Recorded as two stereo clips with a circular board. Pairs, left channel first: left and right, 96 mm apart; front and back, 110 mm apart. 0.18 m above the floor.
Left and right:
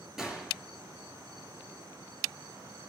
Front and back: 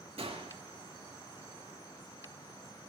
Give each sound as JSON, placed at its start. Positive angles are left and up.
{"t": 0.2, "sound": "a gunshot", "azimuth_deg": -175, "distance_m": 3.5}